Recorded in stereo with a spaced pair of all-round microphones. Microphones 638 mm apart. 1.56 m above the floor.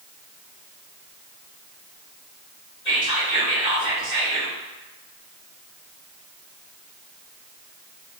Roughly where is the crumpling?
No crumpling in this recording.